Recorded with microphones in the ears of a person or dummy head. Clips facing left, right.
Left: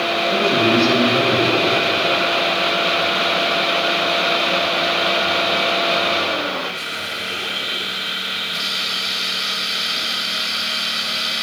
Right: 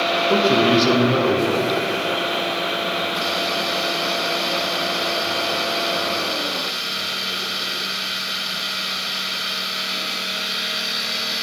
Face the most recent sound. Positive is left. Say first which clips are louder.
# right 1 dB
turn(degrees=-75)  # may be behind; listen again after turning